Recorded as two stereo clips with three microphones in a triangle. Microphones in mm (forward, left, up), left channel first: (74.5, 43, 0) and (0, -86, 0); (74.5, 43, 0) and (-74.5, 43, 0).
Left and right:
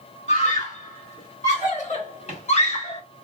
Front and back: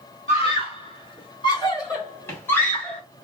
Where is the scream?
40° left, 2.5 m; by 3.0 s 85° left, 1.8 m.